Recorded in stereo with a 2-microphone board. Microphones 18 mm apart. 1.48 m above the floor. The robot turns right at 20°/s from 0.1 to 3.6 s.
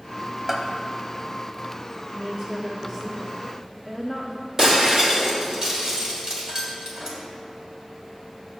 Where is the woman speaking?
40° right (ahead or behind), 0.6 m; by 4.5 s 10° right (ahead or behind), 0.6 m.